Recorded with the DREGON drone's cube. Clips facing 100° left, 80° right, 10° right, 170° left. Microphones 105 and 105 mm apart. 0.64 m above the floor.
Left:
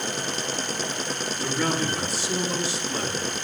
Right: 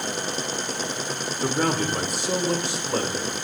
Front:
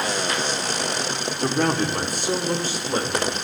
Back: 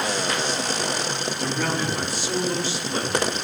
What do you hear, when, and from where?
1.4 s a man speaking: 40° right, 2 m; by 3.3 s 60° right, 2.5 m